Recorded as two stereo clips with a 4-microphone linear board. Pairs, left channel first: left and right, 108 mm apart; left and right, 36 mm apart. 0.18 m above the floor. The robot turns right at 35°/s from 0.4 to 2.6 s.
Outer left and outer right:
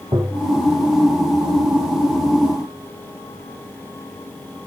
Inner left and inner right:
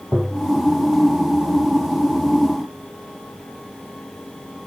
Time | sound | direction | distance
0.1 | tapping | 35° right (ahead or behind) | 3 m